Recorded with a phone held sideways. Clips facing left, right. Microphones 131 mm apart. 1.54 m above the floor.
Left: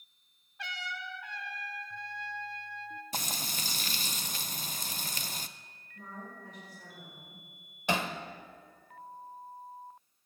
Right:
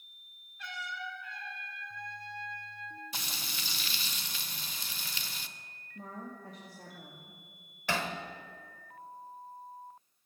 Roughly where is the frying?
Left.